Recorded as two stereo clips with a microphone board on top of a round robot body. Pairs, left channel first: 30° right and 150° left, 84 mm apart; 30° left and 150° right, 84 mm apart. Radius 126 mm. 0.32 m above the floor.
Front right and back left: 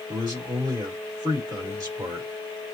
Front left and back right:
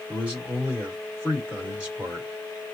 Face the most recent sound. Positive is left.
turn(degrees=135)